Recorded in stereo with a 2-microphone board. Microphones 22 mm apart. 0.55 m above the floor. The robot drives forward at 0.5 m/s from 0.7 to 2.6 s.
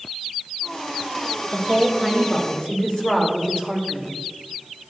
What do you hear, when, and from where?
1.5 s a woman speaking: 45° left (ahead or behind), 1.8 m; by 4.1 s 40° left (ahead or behind), 1.9 m